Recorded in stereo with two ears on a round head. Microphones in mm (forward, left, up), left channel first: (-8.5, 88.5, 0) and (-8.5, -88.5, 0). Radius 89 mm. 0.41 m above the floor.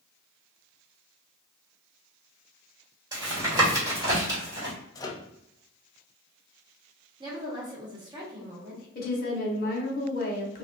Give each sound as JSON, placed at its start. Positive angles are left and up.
{"t": 3.1, "sound": "tapping", "side_deg": -20, "distance_m": 1.7}
{"t": 5.0, "sound": "a microwave", "side_deg": 20, "distance_m": 0.5}
{"t": 7.2, "sound": "a woman speaking", "side_deg": -25, "distance_m": 1.1}
{"t": 8.9, "sound": "a woman speaking", "side_deg": 45, "distance_m": 1.1}